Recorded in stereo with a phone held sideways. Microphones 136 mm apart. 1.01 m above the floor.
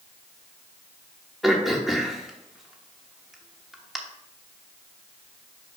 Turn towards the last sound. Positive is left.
turn(degrees=0)  # may be behind; listen again after turning